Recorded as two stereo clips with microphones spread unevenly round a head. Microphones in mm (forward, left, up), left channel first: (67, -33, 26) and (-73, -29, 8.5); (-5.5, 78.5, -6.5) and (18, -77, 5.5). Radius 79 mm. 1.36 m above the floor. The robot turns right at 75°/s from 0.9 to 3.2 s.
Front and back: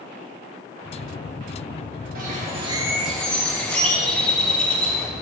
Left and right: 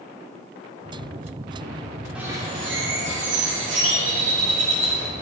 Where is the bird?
165° right, 3 m; by 5.1 s 85° right, 3 m.